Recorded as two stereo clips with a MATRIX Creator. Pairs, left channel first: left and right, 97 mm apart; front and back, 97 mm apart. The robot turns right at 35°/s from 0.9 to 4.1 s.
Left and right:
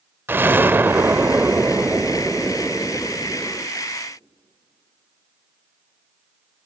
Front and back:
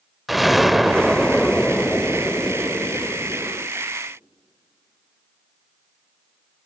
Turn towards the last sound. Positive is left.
turn(degrees=20)